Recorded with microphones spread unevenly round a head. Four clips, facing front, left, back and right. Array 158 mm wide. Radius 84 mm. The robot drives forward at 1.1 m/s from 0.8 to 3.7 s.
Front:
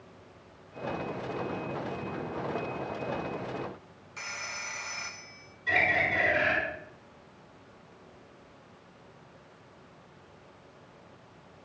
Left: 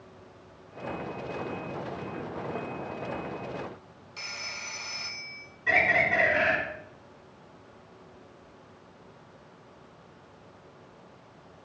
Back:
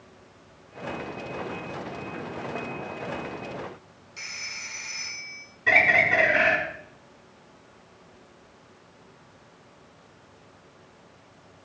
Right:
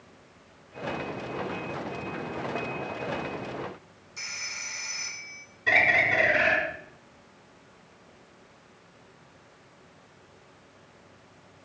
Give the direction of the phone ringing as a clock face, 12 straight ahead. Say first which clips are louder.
Left 1 dB, front 3 dB; 11 o'clock.